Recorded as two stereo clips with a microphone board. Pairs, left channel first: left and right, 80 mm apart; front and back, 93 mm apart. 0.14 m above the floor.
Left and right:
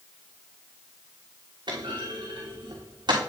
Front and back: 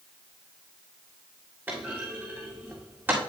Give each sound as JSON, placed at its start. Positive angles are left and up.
{"t": 1.7, "sound": "a clunk", "azimuth_deg": -110, "distance_m": 3.0}